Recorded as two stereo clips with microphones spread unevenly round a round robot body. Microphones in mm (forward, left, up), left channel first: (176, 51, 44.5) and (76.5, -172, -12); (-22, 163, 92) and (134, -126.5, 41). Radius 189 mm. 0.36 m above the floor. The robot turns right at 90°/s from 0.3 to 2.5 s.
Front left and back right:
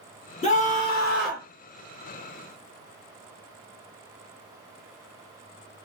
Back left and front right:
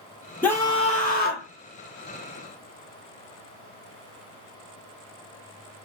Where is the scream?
15° left, 1.4 m; by 1.5 s 110° left, 1.4 m.